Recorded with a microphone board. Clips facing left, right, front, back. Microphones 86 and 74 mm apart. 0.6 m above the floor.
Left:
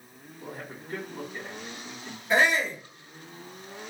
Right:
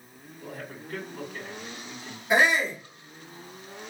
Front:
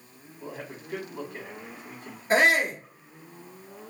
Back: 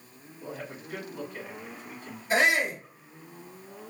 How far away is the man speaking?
About 2 m.